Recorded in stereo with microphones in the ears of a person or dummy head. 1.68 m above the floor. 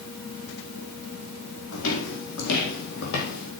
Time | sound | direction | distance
1.7 | footsteps | 70° left (ahead or behind) | 5 m